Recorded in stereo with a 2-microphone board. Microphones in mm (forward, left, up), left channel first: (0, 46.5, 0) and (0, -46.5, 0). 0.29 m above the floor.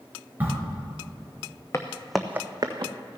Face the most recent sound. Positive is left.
turn(degrees=-55)  # may be behind; listen again after turning